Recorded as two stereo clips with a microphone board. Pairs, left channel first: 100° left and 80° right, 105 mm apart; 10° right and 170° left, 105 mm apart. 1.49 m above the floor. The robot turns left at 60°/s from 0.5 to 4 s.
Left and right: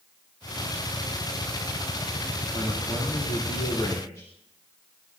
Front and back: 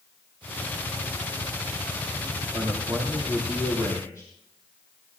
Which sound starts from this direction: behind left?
A man speaking, at 2.5 s.